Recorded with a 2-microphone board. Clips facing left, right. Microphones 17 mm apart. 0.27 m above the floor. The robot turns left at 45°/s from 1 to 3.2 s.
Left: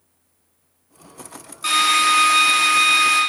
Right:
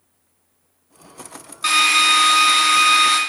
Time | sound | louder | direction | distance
1.6 | a drill | right 2 dB | 30° right | 1.8 m